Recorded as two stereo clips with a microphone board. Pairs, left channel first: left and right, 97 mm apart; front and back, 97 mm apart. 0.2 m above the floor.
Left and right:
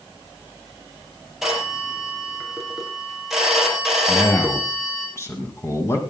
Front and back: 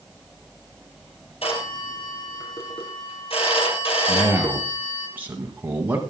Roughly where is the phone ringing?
Ahead.